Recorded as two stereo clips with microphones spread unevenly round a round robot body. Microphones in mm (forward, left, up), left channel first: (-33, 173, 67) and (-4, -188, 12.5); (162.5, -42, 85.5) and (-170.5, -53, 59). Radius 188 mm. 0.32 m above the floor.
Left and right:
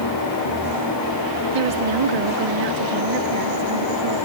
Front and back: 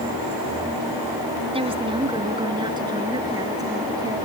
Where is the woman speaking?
105° right; by 4.2 s 100° right.